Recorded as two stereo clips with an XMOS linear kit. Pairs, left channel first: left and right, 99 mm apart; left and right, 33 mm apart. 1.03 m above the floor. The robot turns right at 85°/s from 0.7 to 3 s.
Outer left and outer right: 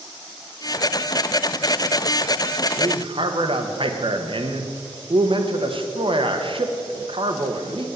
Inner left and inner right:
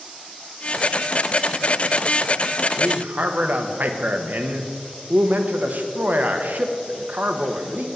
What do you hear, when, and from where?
2.8 s a man speaking: 50° right (ahead or behind), 1.1 m; by 7.9 s 60° right (ahead or behind), 1.1 m